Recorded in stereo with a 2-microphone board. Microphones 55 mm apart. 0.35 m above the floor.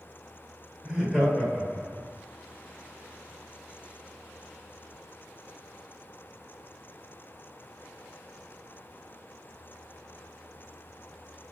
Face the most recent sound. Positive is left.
turn(degrees=20)  # may be behind; listen again after turning